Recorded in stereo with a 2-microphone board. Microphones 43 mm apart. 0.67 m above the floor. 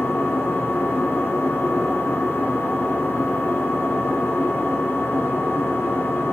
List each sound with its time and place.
0.0 s an engine running: 65° left (ahead or behind), 1.6 m